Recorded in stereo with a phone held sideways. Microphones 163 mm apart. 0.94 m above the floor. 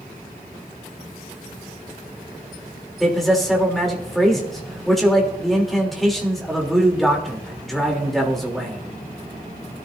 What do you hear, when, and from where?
3.0 s a man speaking: centre (ahead or behind), 3.5 m